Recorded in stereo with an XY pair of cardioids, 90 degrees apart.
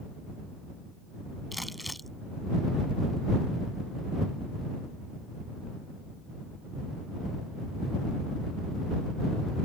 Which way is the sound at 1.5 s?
Straight ahead.